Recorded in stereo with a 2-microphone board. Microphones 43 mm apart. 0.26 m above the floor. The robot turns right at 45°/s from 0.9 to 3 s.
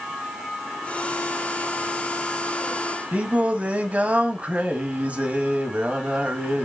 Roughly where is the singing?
Right.